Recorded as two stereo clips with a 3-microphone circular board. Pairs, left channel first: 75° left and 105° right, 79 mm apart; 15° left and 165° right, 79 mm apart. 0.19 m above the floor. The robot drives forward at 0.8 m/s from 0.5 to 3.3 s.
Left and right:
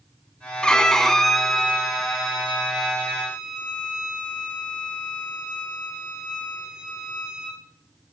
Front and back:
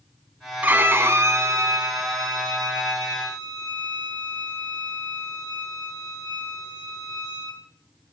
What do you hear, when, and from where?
0.6 s a violin: 145° left, 1.3 m; by 7.6 s 170° left, 3 m